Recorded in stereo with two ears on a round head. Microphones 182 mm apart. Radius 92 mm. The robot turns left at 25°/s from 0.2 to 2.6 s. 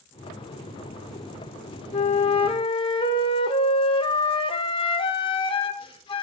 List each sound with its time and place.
1.9 s a flute: 30° left (ahead or behind), 0.7 m; by 6.2 s 25° left (ahead or behind), 0.7 m